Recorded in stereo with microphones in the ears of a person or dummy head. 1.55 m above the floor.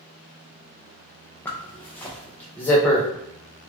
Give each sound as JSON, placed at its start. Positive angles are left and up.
{"t": 1.4, "sound": "a zipper", "side_deg": 15, "distance_m": 0.5}